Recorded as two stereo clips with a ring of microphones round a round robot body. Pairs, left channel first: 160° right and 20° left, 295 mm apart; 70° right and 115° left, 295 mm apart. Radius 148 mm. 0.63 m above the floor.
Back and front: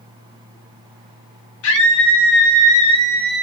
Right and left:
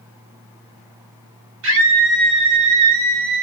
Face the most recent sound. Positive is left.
turn(degrees=110)